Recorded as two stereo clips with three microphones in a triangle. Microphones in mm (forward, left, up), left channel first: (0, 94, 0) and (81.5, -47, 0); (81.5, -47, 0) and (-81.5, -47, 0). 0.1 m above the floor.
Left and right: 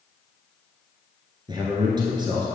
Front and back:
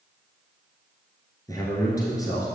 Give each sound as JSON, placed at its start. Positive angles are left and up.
{"t": 1.5, "sound": "a man speaking", "azimuth_deg": -40, "distance_m": 1.4}